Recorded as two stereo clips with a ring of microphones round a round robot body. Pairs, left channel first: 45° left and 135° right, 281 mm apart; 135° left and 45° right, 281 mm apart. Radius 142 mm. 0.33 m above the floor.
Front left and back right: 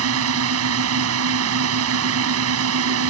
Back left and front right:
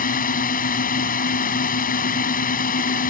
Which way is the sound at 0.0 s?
165° right.